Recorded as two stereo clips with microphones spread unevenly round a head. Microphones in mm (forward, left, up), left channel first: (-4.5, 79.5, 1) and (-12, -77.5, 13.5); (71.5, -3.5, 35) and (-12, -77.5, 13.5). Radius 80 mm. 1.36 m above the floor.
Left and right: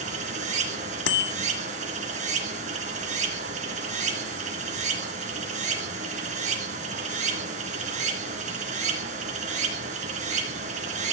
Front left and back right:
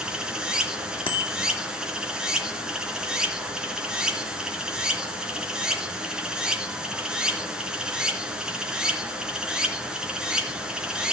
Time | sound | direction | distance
0.0 | running water | 50° right | 3 m
1.1 | a bicycle bell | 100° left | 2 m